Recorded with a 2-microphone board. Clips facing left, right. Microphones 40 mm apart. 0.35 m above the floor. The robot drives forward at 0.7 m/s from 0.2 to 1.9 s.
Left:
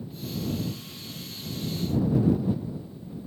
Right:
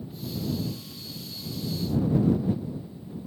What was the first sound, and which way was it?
Only background noise.